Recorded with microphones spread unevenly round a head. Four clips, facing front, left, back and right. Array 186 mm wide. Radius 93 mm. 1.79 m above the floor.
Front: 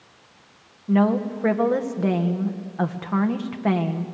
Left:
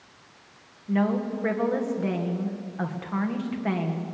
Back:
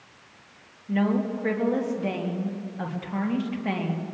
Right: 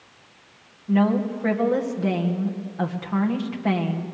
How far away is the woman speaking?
About 2 m.